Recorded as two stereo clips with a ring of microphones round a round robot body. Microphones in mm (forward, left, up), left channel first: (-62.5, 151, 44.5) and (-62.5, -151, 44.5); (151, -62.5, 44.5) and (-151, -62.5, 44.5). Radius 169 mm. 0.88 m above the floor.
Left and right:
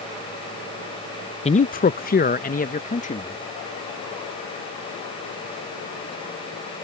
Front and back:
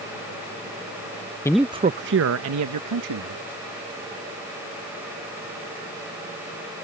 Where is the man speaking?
60° left; by 3.4 s 155° left.